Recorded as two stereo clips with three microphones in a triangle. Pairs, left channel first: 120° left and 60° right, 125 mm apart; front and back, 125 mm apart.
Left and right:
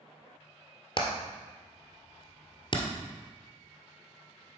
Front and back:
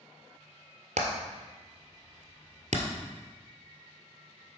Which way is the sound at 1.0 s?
170° left.